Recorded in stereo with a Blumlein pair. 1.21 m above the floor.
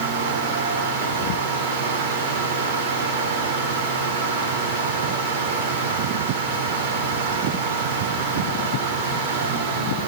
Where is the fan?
50° right, 4 m.